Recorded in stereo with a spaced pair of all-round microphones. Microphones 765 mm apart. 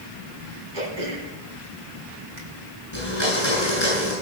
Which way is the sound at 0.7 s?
70° right (ahead or behind).